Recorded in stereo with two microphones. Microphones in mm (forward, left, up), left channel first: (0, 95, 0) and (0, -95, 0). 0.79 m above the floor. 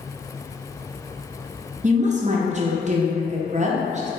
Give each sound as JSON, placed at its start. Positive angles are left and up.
{"t": 1.8, "sound": "a woman speaking", "side_deg": -40, "distance_m": 0.5}